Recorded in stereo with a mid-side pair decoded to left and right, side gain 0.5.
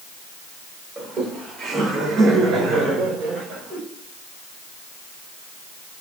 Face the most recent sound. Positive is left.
turn(degrees=-75)